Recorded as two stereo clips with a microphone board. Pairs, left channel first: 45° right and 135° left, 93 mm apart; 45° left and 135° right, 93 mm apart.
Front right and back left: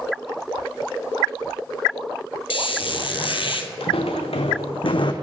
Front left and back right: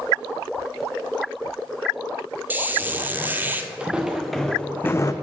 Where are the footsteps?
60° right, 0.9 m; by 5.1 s 10° right, 0.5 m.